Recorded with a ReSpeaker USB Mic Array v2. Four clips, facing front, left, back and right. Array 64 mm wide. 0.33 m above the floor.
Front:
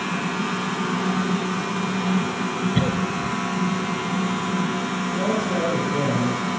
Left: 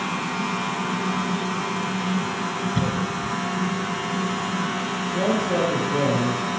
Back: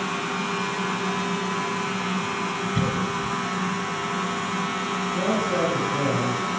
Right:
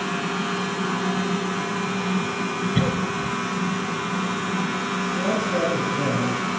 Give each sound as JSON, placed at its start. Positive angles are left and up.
{"t": 2.8, "sound": "a cough", "azimuth_deg": -35, "distance_m": 1.5}
{"t": 5.1, "sound": "a man speaking", "azimuth_deg": 90, "distance_m": 5.5}